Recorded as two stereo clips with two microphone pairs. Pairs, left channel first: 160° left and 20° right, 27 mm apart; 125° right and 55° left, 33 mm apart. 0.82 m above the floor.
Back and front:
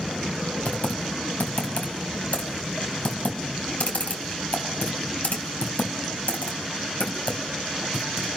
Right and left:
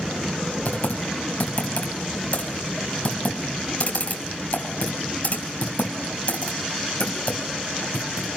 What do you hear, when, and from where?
0.7 s typing on a keyboard: 170° right, 4 m